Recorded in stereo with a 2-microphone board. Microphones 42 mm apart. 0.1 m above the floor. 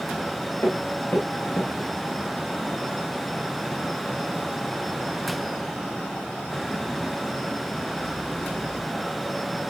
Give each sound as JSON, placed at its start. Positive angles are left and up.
{"t": 0.5, "sound": "footsteps", "side_deg": 85, "distance_m": 7.0}